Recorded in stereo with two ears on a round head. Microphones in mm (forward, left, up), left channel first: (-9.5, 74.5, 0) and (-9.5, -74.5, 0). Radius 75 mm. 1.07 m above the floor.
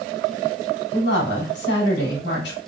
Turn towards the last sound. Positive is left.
turn(degrees=70)  # may be behind; listen again after turning